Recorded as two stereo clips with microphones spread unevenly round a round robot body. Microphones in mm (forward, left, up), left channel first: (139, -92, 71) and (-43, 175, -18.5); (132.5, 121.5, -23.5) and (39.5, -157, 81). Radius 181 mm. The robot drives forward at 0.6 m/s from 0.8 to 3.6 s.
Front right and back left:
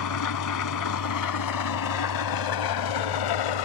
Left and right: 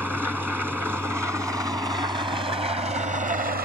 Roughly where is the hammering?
I don't hear hammering.